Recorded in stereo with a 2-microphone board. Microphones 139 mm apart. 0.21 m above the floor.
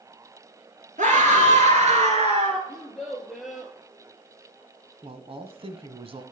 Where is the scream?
60° right (ahead or behind), 4 m; by 2.6 s 45° right (ahead or behind), 3.5 m.